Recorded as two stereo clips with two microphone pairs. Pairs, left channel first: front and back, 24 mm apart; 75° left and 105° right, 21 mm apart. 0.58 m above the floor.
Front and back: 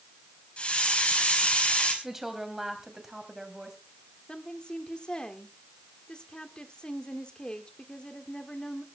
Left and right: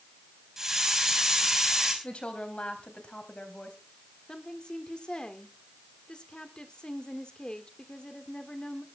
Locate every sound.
0.6 s a hiss: 35° right, 5 m
2.0 s a woman speaking: 105° left, 3 m
4.3 s a woman speaking: 40° left, 1.9 m